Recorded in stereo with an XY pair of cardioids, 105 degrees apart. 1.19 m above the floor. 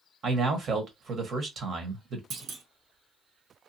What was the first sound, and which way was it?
A man speaking, 50° right.